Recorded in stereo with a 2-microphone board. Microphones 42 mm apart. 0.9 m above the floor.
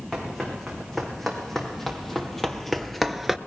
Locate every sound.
0.1 s running footsteps: 10° left (ahead or behind), 4.5 m; by 3.4 s 5° right (ahead or behind), 0.8 m